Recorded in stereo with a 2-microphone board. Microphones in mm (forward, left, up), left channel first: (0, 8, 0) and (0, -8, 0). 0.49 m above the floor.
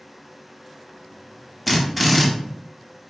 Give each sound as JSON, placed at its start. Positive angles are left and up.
{"t": 1.7, "sound": "a drill", "side_deg": 0, "distance_m": 0.7}